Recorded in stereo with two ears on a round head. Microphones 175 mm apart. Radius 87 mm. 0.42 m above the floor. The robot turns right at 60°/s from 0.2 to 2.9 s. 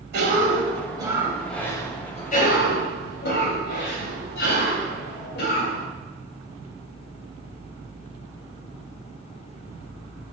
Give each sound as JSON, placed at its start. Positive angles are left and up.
{"t": 0.1, "sound": "a cough", "azimuth_deg": -75, "distance_m": 2.5}